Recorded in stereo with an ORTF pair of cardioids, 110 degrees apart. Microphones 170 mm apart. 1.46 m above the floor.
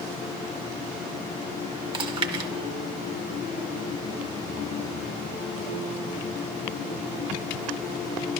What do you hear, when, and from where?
1.9 s chewing: 35° right, 1.1 m